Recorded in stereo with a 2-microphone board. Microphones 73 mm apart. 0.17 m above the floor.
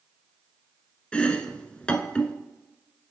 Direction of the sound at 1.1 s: 15° left (ahead or behind).